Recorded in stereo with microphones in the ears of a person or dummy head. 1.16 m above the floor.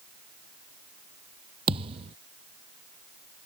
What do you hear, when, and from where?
1.7 s a thud: 35° right (ahead or behind)